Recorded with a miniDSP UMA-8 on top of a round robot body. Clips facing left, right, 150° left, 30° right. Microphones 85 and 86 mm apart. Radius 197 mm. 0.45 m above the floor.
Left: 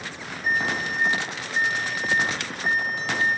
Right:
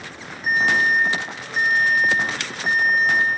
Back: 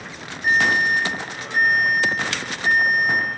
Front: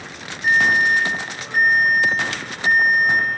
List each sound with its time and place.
0.4 s an alarm: 60° right, 5.5 m